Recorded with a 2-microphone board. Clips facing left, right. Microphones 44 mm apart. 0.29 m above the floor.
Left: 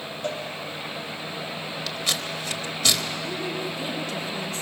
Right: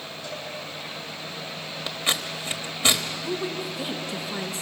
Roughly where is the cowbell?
Left.